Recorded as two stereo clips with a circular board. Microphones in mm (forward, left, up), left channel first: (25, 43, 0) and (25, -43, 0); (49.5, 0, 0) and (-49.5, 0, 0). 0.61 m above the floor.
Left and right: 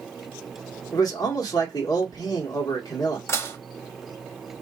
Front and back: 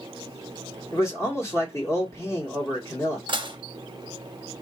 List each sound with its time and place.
0.9 s a man speaking: 55° left, 1.4 m
3.3 s dishes clattering: 145° left, 0.6 m